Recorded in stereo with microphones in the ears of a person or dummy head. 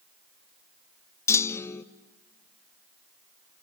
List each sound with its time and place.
1.3 s a clunk: 15° left (ahead or behind), 0.5 m